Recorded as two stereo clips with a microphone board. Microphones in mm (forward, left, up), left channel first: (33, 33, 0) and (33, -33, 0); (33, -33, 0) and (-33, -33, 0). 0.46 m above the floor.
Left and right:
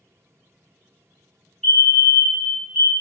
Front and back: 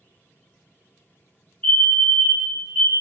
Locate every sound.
1.6 s a fire alarm: 10° left, 2.0 m